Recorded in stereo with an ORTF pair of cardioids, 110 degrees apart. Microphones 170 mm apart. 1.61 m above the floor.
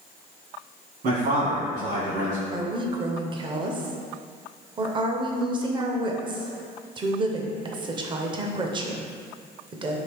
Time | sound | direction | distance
1.0 | a man speaking | 65° right | 1.9 m
2.5 | a woman speaking | 30° right | 0.7 m